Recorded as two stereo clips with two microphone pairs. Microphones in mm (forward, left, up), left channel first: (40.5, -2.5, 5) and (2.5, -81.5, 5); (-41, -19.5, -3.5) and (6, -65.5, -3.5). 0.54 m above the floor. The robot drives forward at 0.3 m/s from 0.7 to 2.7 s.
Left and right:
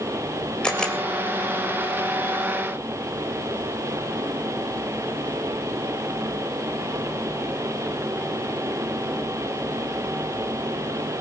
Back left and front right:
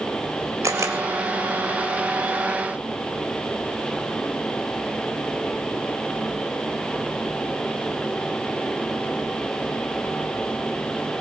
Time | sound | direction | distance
0.6 | a camera shutter | 15° right | 3 m